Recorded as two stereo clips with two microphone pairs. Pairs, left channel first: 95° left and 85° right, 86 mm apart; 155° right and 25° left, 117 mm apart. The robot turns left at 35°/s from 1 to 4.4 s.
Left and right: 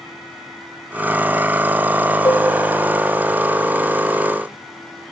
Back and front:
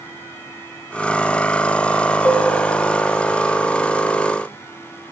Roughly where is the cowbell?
Behind left.